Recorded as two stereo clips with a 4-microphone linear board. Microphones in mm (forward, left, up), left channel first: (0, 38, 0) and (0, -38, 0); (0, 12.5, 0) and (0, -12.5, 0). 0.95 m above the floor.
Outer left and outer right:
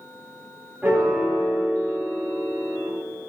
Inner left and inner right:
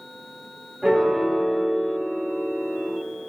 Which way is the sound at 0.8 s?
25° right (ahead or behind).